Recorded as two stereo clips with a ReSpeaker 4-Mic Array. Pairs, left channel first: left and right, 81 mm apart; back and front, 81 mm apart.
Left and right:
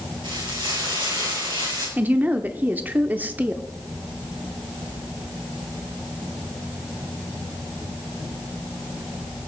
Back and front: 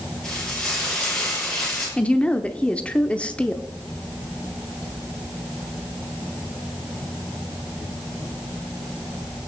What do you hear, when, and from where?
0.2 s frying: 100° right, 6.5 m
2.0 s a woman speaking: 125° right, 0.8 m